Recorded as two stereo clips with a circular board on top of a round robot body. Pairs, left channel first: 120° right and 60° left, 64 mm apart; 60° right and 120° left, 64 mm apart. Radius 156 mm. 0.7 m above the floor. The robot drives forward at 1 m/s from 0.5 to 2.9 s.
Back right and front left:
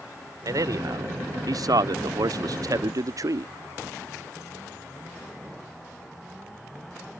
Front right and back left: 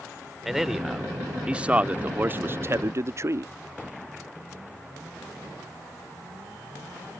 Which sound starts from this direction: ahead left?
A man speaking, at 0.5 s.